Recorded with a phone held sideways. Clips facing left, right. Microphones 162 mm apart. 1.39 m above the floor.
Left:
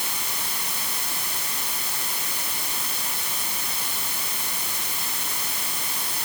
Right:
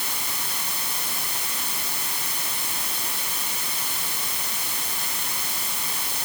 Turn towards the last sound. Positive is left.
No sound to turn to.